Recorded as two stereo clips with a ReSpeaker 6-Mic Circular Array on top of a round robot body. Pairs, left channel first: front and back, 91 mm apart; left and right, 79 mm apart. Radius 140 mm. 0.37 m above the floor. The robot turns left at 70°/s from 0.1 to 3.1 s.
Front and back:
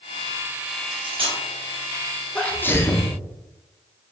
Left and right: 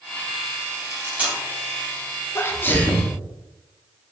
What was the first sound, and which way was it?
Cutlery clinking, 140° right.